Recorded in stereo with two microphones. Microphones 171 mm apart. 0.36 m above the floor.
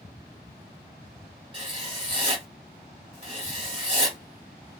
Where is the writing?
35° right (ahead or behind), 1.8 m.